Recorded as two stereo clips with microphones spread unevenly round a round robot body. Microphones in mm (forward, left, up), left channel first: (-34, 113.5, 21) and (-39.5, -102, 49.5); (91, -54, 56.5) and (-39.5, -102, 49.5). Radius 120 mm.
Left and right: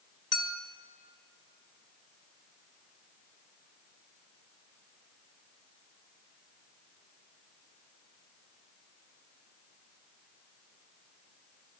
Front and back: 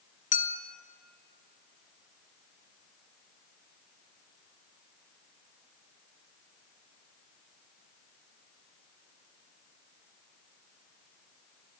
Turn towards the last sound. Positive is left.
turn(degrees=5)